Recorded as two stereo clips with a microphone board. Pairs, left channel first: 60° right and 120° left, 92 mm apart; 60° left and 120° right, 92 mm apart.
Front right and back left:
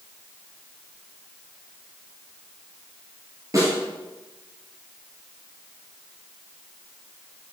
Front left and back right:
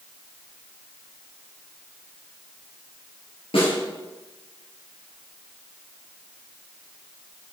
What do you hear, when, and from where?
3.5 s a snare drum: 65° left, 4 m